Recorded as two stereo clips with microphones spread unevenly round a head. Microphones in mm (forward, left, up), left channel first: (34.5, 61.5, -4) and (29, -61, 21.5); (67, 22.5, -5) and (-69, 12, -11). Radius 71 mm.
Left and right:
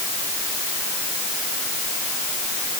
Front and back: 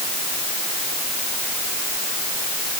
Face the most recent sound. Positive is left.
No sound to turn to.